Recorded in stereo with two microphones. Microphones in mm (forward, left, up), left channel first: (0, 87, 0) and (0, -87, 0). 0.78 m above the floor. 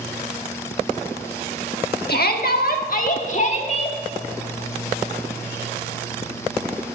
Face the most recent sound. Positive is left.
turn(degrees=35)  # may be behind; listen again after turning